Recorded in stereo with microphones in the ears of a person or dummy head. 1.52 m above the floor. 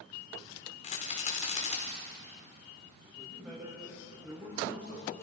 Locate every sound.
0.8 s a rattle: 40° left (ahead or behind), 4 m
3.0 s a man speaking: 10° right (ahead or behind), 8 m